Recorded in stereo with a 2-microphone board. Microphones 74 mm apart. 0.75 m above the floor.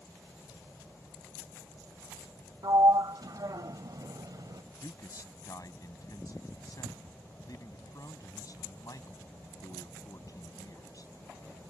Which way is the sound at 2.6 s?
60° right (ahead or behind).